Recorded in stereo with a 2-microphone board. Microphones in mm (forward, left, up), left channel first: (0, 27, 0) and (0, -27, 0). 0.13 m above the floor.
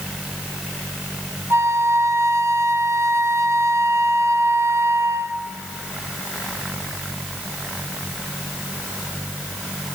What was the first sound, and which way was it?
A flute, 60° right (ahead or behind).